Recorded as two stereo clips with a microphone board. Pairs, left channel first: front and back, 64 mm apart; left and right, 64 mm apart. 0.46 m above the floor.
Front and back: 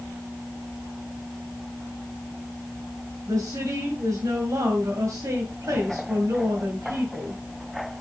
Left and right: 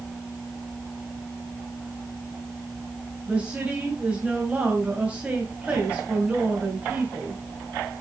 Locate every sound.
3.3 s a woman speaking: 160° right, 2.5 m